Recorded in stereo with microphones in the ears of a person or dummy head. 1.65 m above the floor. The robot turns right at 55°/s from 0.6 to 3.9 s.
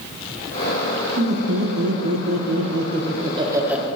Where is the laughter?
150° right, 1.6 m; by 3.9 s 5° right, 1.6 m.